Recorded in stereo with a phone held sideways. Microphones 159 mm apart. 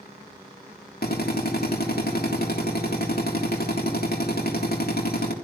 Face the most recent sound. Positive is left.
turn(degrees=75)  # may be behind; listen again after turning